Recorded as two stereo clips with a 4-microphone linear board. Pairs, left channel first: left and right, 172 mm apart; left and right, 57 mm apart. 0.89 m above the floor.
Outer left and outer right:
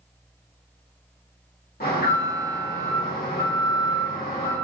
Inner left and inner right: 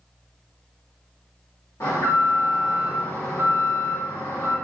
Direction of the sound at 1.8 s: 60° left (ahead or behind).